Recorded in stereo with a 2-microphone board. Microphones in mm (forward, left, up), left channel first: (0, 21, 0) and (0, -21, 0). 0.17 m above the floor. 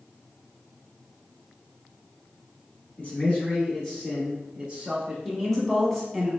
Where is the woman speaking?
5° left (ahead or behind), 1.0 m.